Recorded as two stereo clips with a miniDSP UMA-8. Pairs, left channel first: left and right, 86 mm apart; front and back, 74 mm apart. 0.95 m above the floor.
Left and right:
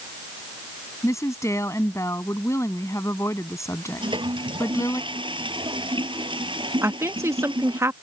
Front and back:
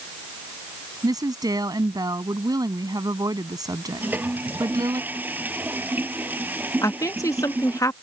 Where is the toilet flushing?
115° right.